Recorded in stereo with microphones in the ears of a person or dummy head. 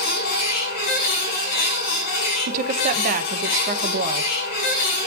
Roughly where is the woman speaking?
Right.